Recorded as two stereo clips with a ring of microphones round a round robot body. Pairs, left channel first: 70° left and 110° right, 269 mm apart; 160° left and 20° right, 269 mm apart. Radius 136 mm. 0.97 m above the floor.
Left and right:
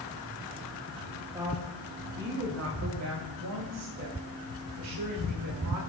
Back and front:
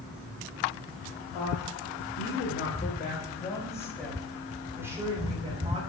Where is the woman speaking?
175° left, 3 m; by 5.8 s 95° right, 4.5 m.